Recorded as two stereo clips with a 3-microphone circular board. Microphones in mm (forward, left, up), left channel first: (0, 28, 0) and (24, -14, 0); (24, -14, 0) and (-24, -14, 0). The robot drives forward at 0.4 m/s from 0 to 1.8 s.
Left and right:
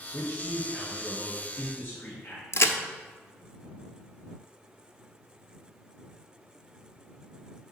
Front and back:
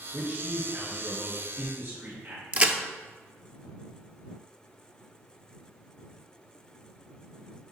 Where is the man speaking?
145° left, 2.0 m; by 2.4 s 155° left, 2.5 m.